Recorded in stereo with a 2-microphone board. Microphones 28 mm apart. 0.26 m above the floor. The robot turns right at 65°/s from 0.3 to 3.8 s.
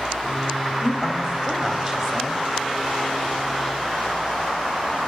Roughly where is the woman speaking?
Centre.